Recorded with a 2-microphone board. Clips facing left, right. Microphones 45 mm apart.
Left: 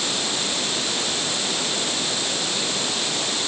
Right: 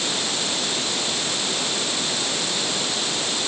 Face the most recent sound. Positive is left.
No sound to turn to.